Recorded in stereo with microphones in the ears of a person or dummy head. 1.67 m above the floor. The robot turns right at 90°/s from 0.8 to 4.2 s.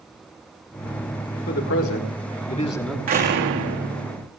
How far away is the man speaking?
About 3.5 m.